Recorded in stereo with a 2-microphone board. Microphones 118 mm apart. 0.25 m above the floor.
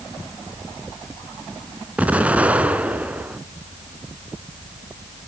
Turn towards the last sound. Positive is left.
turn(degrees=-10)  # may be behind; listen again after turning